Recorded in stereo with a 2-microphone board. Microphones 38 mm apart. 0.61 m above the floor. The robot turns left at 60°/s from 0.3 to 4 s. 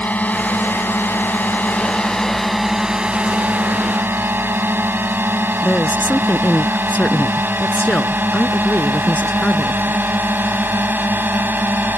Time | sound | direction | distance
0.0 | a drone | 45° left (ahead or behind) | ?
5.6 | a woman speaking | 40° left (ahead or behind) | ?